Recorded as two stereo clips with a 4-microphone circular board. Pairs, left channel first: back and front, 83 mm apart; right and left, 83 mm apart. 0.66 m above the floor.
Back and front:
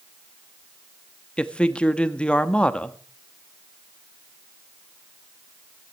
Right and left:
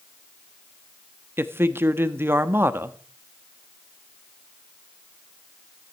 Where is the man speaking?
115° left, 1.0 m.